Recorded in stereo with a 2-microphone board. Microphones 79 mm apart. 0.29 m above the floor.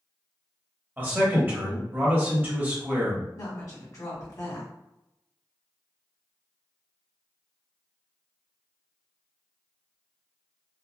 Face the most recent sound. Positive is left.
turn(degrees=45)  # may be behind; listen again after turning